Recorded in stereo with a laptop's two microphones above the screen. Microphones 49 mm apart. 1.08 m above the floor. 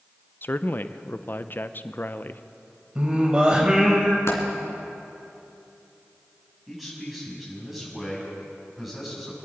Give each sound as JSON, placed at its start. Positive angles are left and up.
{"t": 0.4, "sound": "a man speaking", "side_deg": 40, "distance_m": 0.5}
{"t": 3.0, "sound": "singing", "side_deg": -20, "distance_m": 1.6}
{"t": 4.3, "sound": "a dropped coin", "side_deg": 65, "distance_m": 3.0}
{"t": 6.7, "sound": "a man speaking", "side_deg": -5, "distance_m": 7.0}